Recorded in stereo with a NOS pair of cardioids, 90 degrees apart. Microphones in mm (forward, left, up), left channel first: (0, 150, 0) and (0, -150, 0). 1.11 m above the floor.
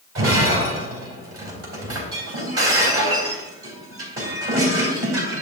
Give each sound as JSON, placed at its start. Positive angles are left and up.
{"t": 0.1, "sound": "breaking glass", "azimuth_deg": -50, "distance_m": 3.5}